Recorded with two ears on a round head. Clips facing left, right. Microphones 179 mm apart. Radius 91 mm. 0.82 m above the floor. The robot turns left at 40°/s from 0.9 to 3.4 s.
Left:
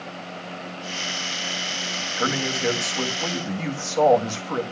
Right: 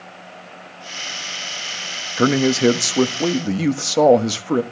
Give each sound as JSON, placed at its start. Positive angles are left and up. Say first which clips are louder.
{"t": 2.2, "sound": "a man speaking", "louder": "right 11 dB", "azimuth_deg": -70, "distance_m": 1.2}